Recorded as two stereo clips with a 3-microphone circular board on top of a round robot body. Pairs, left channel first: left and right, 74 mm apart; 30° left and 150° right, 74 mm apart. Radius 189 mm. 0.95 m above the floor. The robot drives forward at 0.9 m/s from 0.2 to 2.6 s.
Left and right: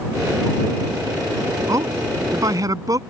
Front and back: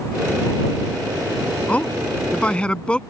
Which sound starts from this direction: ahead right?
A man speaking, at 1.7 s.